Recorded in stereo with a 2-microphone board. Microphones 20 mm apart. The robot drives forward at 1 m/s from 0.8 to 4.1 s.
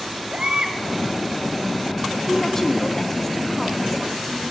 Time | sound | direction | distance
0.3 | a baby crying | 60° right (ahead or behind) | 2.5 m
2.3 | a woman speaking | 25° left (ahead or behind) | 1.3 m